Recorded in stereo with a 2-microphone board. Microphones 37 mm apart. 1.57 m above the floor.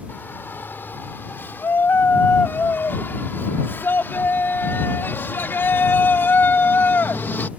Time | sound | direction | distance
0.1 | a shout | 75° left (ahead or behind) | ?